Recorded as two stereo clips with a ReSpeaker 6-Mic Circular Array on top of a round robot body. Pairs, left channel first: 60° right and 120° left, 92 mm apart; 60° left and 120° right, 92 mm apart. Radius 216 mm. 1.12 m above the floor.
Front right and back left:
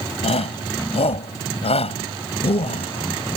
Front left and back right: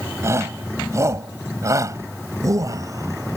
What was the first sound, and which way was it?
A shout, 60° right.